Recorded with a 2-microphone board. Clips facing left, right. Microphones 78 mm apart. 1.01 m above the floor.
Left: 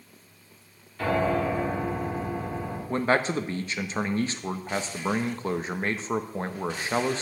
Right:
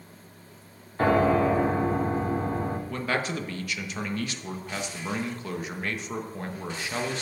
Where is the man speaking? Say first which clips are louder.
Left 9 dB; 30° left (ahead or behind), 0.9 m.